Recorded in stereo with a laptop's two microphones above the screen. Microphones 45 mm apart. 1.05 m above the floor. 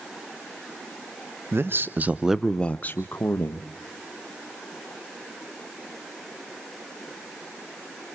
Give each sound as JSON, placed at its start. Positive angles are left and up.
{"t": 1.5, "sound": "a man speaking", "side_deg": -60, "distance_m": 1.1}